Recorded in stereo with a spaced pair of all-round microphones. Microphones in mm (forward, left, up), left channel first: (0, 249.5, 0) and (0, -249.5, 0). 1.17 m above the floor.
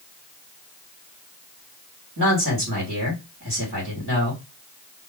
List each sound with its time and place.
2.2 s a man speaking: 35° right (ahead or behind), 1.6 m